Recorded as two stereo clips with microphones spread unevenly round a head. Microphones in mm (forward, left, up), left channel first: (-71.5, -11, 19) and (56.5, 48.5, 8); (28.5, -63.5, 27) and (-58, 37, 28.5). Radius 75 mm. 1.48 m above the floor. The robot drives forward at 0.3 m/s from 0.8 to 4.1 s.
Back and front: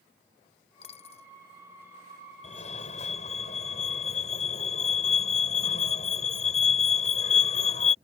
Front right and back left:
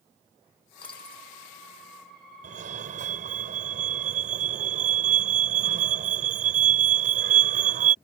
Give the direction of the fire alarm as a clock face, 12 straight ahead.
7 o'clock.